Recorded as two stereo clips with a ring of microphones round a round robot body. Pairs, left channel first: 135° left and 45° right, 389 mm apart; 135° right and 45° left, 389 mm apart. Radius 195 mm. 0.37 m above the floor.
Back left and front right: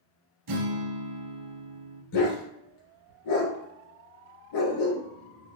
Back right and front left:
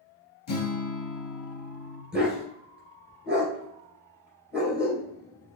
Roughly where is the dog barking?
Behind left.